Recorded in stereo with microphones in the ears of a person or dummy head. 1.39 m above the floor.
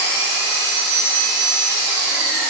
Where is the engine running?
75° right (ahead or behind), 1.4 m.